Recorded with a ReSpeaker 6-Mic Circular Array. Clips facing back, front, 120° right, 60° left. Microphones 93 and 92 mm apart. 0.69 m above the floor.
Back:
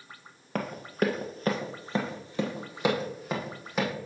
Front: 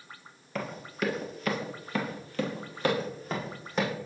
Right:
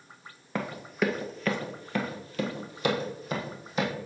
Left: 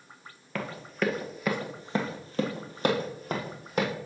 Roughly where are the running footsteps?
Behind.